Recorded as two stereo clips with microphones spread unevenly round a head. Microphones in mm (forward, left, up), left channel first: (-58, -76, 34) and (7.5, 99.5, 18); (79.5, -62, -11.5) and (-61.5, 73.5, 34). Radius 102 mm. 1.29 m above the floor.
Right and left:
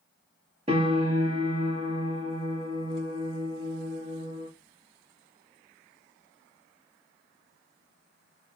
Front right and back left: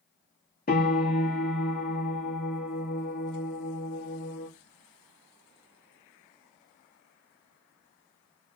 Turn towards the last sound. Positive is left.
turn(degrees=5)